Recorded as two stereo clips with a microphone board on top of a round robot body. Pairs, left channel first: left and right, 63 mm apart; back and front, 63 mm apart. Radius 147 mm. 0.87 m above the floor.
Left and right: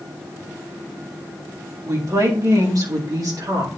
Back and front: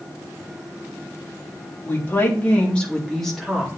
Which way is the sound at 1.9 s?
125° right.